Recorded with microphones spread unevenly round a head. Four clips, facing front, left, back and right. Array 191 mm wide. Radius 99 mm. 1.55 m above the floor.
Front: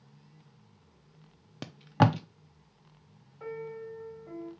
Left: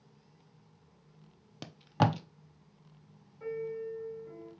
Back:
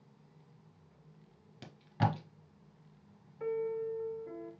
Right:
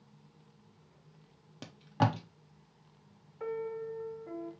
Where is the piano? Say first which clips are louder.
Even, back 5 dB; 130° right, 1.5 m.